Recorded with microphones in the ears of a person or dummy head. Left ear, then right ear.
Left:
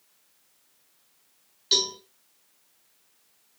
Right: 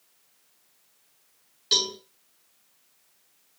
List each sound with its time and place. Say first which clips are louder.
1.7 s a cowbell: even; 5° right (ahead or behind), 5 m